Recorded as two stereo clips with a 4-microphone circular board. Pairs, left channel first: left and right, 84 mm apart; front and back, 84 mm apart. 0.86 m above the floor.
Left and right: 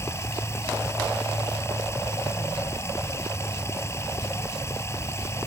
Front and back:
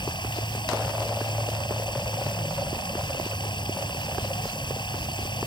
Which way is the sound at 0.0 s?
30° left.